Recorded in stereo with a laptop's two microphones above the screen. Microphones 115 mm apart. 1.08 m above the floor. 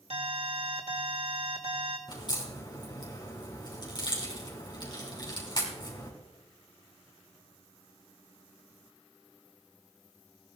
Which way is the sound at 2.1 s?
40° left (ahead or behind).